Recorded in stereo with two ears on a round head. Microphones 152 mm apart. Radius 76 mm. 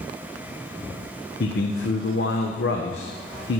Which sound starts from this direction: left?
A man speaking, at 1.4 s.